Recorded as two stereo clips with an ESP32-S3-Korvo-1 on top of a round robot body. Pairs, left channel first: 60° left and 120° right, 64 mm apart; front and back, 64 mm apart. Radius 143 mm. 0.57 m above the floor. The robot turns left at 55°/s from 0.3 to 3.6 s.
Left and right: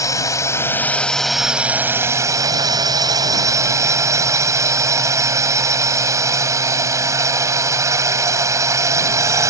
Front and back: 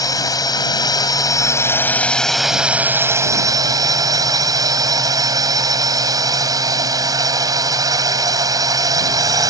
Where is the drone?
25° left; by 9.5 s 155° right.